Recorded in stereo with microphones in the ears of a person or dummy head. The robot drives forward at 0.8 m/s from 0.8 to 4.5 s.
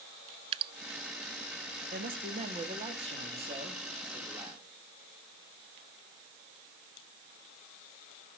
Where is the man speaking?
40° right (ahead or behind), 1.8 m; by 4.6 s 20° right (ahead or behind), 3.5 m.